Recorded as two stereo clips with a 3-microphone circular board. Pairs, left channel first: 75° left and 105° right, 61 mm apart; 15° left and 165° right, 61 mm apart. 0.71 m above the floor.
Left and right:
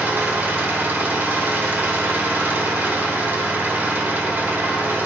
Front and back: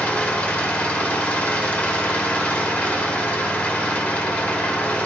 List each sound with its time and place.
0.0 s an engine running: 50° right, 1.8 m